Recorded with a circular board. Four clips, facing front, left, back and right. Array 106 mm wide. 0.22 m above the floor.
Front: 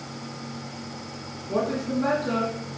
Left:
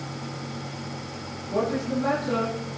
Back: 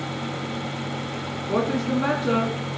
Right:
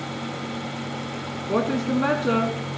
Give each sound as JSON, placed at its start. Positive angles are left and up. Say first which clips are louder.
{"t": 1.5, "sound": "a woman speaking", "louder": "right 3 dB, back 2 dB", "azimuth_deg": -115, "distance_m": 1.8}